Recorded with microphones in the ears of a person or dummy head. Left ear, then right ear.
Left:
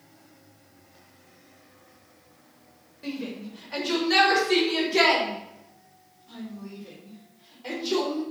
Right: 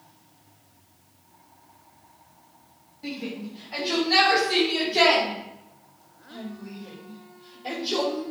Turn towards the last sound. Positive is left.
turn(degrees=70)  # may be behind; listen again after turning